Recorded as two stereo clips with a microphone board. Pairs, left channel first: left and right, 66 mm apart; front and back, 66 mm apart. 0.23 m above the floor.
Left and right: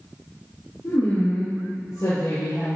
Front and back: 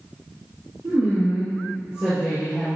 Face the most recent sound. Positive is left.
turn(degrees=95)